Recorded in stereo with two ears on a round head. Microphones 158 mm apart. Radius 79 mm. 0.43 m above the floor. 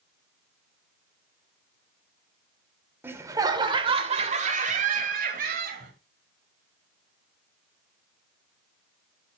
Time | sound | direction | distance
3.0 | laughter | 10° right (ahead or behind) | 1.2 m